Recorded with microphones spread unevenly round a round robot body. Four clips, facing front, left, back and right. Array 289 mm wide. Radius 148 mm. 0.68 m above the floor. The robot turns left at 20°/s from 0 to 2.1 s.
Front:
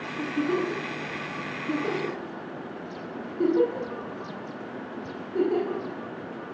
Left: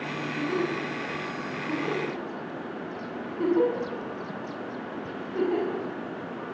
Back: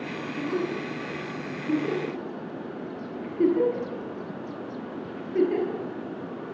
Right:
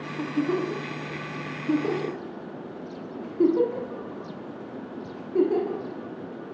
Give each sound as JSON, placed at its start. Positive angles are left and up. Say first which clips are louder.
{"t": 0.2, "sound": "a giggle", "louder": "right 3 dB, front 3 dB", "azimuth_deg": -80, "distance_m": 6.5}